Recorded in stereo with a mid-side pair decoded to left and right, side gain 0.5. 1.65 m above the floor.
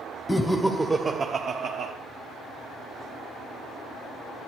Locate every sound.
0.3 s laughter: 10° left, 0.7 m; by 1.9 s 70° right, 0.9 m